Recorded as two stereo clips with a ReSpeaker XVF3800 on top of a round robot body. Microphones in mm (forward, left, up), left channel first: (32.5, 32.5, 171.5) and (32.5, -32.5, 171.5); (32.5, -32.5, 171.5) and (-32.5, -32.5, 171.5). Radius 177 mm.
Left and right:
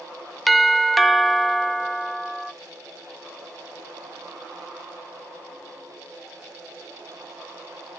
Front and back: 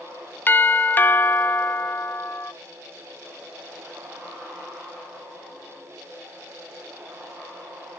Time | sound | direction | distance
0.5 | a doorbell | straight ahead | 0.9 m